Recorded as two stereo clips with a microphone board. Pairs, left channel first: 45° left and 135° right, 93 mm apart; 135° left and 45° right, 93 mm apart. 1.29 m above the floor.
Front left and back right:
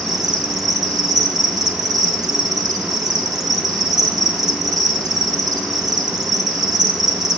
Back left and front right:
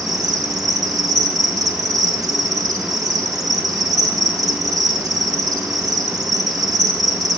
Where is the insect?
90° right, 1.4 m.